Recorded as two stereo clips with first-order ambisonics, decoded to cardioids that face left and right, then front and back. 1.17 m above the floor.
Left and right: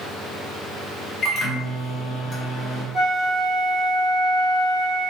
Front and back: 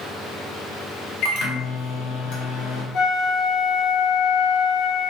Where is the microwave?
25° left, 1.0 m.